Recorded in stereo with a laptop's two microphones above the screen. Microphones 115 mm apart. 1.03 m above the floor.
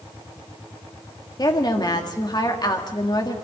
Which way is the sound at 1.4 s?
35° left (ahead or behind).